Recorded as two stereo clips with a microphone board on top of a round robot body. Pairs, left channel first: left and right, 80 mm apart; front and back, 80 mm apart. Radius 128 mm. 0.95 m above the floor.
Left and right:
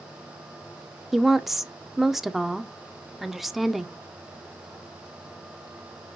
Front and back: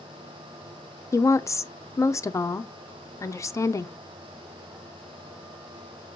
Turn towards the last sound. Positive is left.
turn(degrees=-5)